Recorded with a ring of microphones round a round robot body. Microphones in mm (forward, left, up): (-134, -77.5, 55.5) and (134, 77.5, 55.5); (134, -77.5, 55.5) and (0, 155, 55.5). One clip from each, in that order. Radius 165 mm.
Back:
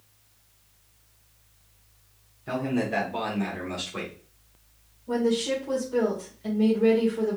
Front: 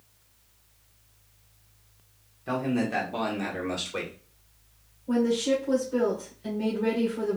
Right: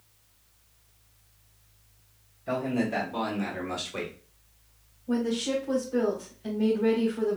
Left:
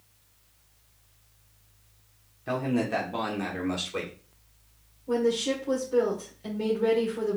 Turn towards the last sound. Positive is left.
turn(degrees=120)